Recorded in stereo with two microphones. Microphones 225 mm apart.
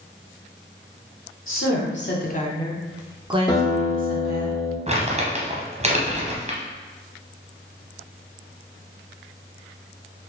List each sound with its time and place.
1.5 s a woman speaking: 70° left (ahead or behind), 1.2 m; by 4.5 s 45° right (ahead or behind), 1.7 m
3.5 s a guitar: 15° left (ahead or behind), 1.2 m
4.9 s crumpling: 30° right (ahead or behind), 0.9 m